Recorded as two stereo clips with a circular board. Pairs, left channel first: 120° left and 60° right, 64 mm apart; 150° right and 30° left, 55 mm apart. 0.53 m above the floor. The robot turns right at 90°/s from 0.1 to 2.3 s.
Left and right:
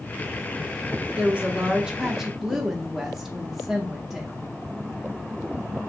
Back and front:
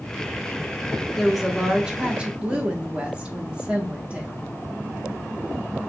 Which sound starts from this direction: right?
A woman speaking, at 1.2 s.